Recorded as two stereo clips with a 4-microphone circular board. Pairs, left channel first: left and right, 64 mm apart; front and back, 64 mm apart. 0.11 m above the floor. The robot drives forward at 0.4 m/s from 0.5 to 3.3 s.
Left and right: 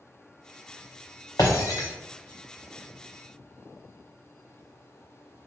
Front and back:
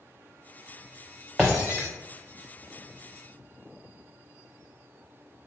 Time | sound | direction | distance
1.4 | breaking glass | 100° left | 0.9 m